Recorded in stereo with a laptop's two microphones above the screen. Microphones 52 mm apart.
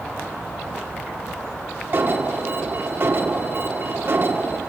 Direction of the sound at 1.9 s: 45° right (ahead or behind).